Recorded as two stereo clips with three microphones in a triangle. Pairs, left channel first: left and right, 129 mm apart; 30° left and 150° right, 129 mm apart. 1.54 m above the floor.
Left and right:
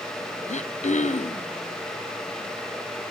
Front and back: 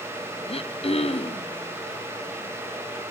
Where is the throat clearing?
70° left, 0.7 m.